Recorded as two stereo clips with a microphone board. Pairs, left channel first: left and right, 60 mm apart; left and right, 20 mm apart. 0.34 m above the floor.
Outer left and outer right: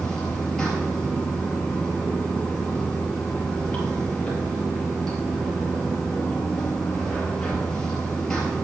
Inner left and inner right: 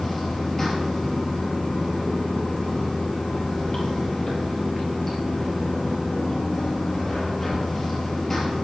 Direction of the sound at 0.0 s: 10° left (ahead or behind).